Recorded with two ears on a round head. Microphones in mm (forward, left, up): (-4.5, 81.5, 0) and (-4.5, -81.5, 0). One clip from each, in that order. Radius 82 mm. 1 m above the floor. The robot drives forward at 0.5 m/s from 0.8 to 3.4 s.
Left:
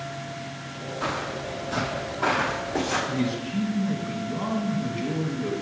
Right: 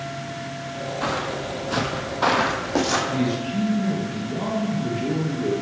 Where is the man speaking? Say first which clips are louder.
Right 4 dB; 15° left (ahead or behind), 1.5 m; by 5.5 s 10° left (ahead or behind), 1.6 m.